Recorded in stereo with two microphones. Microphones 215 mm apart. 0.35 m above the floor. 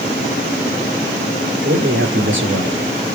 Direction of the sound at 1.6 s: 75° right (ahead or behind).